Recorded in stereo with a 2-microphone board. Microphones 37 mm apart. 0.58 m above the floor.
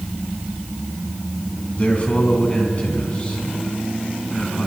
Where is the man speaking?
40° left (ahead or behind), 4.5 m; by 4.7 s 20° left (ahead or behind), 5.5 m.